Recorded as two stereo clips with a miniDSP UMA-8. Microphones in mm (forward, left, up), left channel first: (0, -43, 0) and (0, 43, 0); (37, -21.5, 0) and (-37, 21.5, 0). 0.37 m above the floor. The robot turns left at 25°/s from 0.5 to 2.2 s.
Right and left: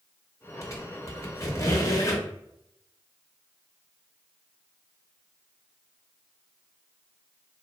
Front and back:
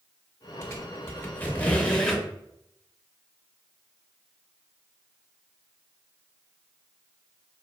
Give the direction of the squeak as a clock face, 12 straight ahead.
2 o'clock.